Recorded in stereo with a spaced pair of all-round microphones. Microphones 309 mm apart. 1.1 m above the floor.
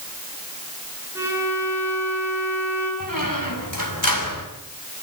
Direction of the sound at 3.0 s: 80° left.